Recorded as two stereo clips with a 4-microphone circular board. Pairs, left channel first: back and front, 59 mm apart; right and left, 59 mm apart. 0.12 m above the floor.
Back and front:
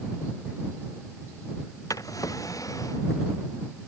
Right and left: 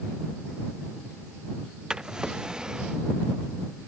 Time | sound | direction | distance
1.9 | a drawer | 165° left | ?